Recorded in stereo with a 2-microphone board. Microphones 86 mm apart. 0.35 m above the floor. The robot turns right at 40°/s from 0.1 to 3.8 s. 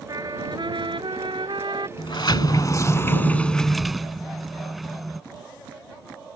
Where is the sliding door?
105° left; by 5.2 s straight behind.